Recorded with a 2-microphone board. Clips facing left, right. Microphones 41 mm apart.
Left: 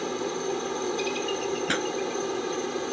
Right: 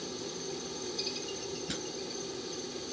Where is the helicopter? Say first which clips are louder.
Left 11 dB; 55° left (ahead or behind).